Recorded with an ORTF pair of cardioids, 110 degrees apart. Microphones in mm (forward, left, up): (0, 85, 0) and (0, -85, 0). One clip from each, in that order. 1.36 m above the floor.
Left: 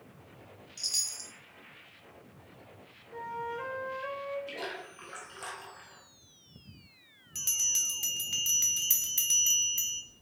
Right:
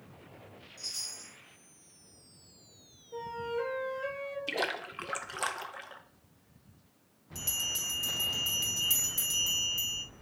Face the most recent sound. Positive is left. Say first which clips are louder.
# left 4 dB
turn(degrees=30)